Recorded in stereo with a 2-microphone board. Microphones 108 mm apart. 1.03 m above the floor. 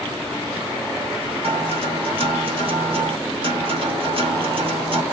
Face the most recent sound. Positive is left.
turn(degrees=-55)  # may be behind; listen again after turning